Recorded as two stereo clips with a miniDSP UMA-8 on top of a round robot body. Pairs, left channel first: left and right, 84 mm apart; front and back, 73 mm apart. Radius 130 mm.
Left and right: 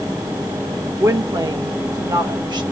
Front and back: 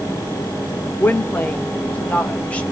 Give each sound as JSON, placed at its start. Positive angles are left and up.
{"t": 1.0, "sound": "a woman speaking", "azimuth_deg": -55, "distance_m": 1.3}